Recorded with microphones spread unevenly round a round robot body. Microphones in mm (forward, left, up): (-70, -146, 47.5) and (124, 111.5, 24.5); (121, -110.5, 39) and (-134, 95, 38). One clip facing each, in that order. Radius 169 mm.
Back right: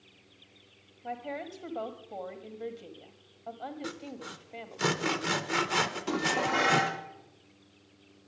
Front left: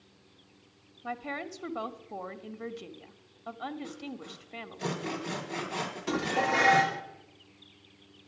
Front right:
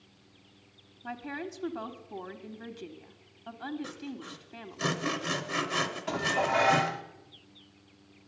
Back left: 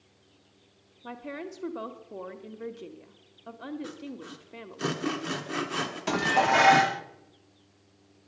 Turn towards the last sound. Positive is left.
turn(degrees=140)